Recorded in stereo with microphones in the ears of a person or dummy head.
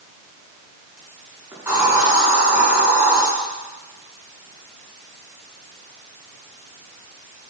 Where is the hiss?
15° right (ahead or behind), 4.5 m.